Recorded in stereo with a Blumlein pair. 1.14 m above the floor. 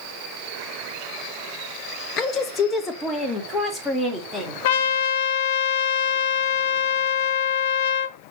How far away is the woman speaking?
About 0.6 m.